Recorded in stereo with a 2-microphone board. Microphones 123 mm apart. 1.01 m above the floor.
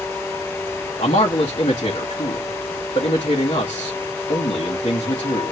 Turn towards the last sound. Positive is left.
turn(degrees=60)  # may be behind; listen again after turning